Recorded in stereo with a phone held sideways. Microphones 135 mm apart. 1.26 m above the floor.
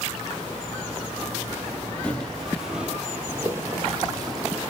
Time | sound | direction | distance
2.0 | footsteps | 10° left (ahead or behind) | 1.6 m